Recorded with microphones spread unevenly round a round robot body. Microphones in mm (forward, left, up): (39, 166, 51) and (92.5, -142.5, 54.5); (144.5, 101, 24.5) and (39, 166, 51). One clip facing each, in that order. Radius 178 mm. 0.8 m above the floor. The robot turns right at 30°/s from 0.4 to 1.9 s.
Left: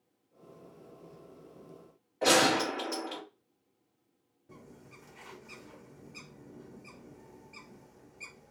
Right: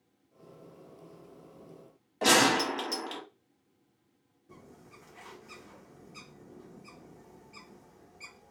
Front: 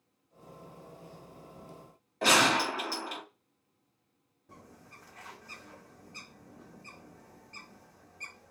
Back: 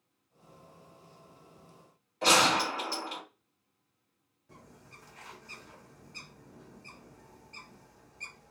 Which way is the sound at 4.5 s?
5° left.